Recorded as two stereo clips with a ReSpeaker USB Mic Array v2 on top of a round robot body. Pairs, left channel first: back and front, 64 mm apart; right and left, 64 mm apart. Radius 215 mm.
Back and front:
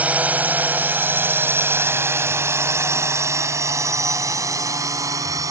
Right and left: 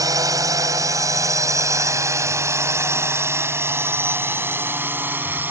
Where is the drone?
65° left; by 5.5 s 30° left.